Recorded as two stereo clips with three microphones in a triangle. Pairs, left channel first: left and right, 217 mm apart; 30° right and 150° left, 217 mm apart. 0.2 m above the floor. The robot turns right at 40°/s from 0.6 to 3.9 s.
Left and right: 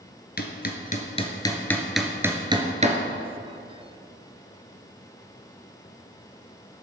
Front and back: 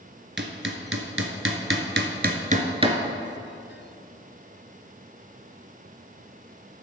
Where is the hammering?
125° left, 1.2 m; by 3.0 s 140° right, 1.2 m.